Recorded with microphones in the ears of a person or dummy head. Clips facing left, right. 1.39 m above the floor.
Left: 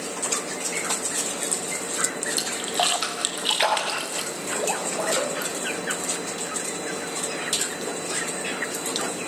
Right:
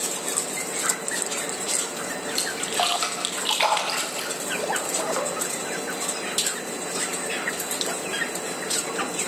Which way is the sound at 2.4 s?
15° left (ahead or behind).